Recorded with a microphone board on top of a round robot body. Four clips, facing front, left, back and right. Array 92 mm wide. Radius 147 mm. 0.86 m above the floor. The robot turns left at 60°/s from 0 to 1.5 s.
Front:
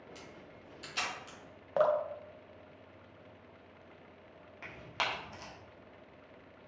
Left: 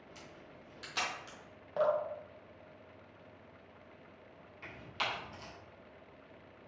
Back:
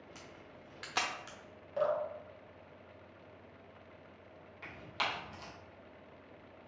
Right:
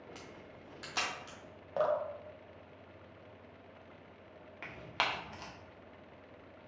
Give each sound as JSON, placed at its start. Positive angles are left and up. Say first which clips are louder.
{"t": 0.1, "sound": "a camera shutter", "louder": "right 2 dB, front 1 dB", "azimuth_deg": -115, "distance_m": 0.5}
{"t": 1.8, "sound": "dripping", "louder": "left 1 dB, front 4 dB", "azimuth_deg": -5, "distance_m": 0.6}
{"t": 4.6, "sound": "tearing paper", "louder": "right 3 dB, front 1 dB", "azimuth_deg": -75, "distance_m": 1.3}